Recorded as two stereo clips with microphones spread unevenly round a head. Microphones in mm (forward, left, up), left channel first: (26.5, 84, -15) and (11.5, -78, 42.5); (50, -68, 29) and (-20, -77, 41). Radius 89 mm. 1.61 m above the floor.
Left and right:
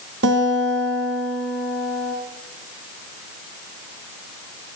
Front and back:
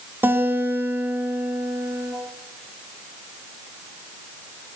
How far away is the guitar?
About 2.5 m.